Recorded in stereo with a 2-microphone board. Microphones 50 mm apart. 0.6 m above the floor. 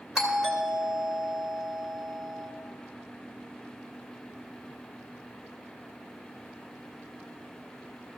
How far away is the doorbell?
About 2.5 m.